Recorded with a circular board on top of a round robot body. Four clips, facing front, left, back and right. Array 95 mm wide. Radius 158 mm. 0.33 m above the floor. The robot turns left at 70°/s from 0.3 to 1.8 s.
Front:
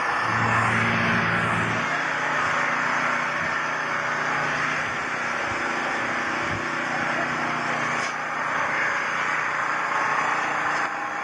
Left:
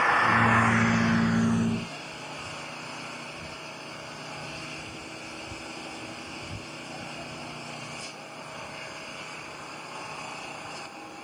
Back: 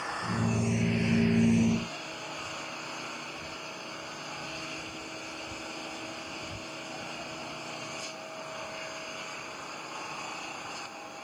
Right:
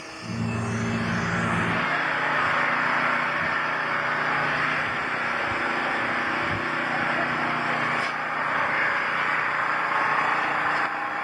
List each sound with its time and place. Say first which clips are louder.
0.0 s an engine running: left 10 dB, front 9 dB; 55° left; by 11.2 s 50° right